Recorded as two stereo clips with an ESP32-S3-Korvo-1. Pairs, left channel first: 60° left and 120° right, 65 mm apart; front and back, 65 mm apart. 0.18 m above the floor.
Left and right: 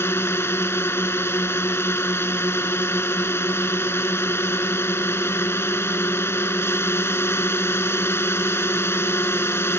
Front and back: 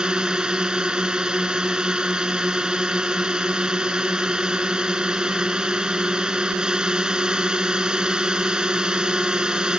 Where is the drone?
105° left.